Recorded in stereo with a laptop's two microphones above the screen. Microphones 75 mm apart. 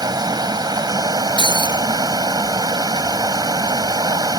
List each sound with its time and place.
0.0 s running water: 65° right (ahead or behind)
1.4 s breaking glass: 70° right (ahead or behind)